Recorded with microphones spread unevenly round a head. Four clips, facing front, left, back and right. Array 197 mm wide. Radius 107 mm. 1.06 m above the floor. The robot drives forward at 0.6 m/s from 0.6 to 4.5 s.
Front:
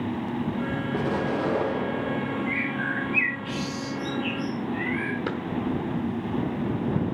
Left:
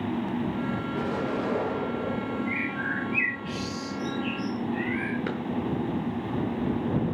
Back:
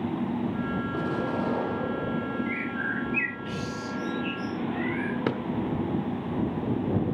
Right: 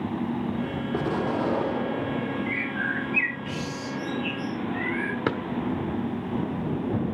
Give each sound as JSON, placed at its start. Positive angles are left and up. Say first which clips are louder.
{"t": 0.9, "sound": "an explosion", "louder": "right 5 dB, front 4 dB", "azimuth_deg": -55, "distance_m": 6.0}
{"t": 2.5, "sound": "a bird", "louder": "right 1 dB, front 2 dB", "azimuth_deg": -65, "distance_m": 6.0}
{"t": 5.3, "sound": "a drawer", "louder": "right 4 dB, back 2 dB", "azimuth_deg": -135, "distance_m": 0.8}